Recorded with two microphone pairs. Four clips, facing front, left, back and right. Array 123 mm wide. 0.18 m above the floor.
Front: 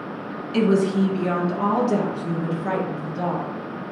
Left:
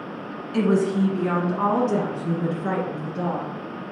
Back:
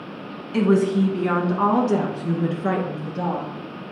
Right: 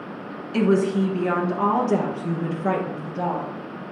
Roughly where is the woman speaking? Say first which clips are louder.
Right 1 dB, back 1 dB; behind.